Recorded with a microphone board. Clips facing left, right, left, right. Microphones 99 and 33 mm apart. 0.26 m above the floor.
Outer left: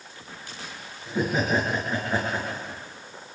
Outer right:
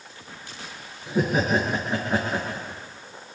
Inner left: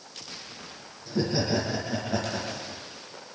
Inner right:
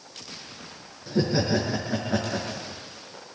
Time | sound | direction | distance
1.1 | laughter | 15° right (ahead or behind) | 4.5 m